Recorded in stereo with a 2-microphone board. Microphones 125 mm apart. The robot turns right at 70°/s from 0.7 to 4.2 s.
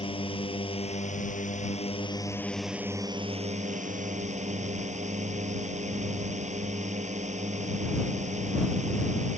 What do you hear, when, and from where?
0.0 s a drone: 45° left; by 9.4 s 70° right